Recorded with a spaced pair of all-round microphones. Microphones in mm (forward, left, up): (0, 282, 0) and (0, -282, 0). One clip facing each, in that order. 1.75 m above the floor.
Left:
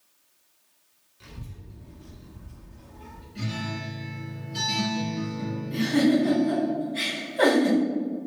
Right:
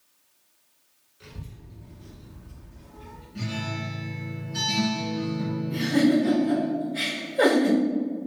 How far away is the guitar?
About 1.8 m.